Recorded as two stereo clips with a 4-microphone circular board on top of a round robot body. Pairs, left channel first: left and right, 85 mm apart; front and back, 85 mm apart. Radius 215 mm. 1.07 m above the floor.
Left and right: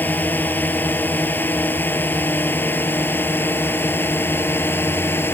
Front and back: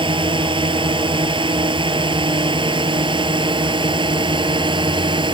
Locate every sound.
0.0 s a drone: 160° left; by 5.3 s 155° left